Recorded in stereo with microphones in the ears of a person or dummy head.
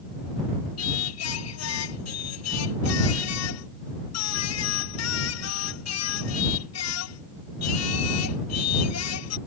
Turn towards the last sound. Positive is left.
turn(degrees=90)